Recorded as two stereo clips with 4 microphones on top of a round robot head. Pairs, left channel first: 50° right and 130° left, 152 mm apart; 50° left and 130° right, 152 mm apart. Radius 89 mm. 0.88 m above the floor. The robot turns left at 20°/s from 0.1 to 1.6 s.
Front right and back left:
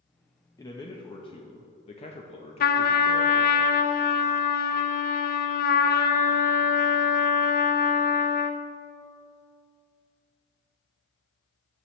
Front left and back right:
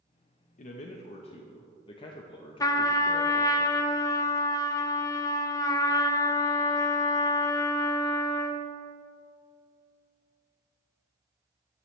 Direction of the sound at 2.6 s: 20° right.